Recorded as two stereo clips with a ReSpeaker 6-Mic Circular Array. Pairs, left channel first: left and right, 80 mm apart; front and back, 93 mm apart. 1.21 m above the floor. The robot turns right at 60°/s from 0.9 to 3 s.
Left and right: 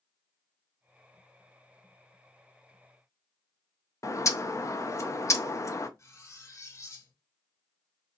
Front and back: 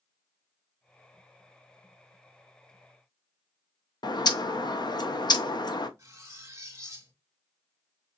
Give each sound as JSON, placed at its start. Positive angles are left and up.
{"t": 4.0, "sound": "a bird", "azimuth_deg": 40, "distance_m": 0.5}
{"t": 6.0, "sound": "cutlery clinking", "azimuth_deg": 130, "distance_m": 0.8}